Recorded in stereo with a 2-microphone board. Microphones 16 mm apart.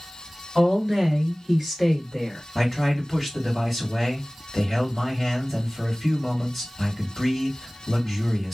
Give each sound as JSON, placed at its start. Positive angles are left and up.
{"t": 0.6, "sound": "a woman speaking", "side_deg": -35, "distance_m": 1.9}
{"t": 2.5, "sound": "a man speaking", "side_deg": -5, "distance_m": 2.0}